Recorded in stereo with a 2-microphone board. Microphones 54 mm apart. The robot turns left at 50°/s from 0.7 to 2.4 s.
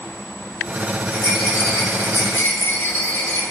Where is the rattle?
125° left, 1.0 m; by 3.4 s 60° left, 1.0 m.